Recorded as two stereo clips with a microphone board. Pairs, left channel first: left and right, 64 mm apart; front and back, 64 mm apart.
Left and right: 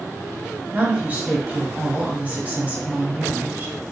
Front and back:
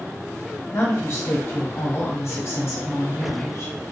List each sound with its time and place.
0.7 s a woman speaking: 30° right, 1.0 m